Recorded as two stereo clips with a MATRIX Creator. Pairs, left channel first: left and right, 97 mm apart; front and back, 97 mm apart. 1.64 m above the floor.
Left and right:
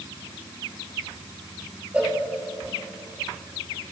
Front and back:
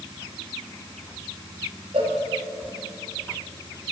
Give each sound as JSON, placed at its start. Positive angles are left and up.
{"t": 1.9, "sound": "a cowbell", "azimuth_deg": -165, "distance_m": 2.5}